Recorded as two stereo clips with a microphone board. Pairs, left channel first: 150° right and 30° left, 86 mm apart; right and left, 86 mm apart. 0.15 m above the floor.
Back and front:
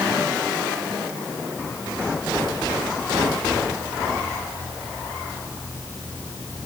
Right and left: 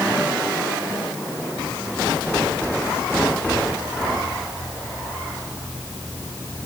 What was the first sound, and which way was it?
Only background noise.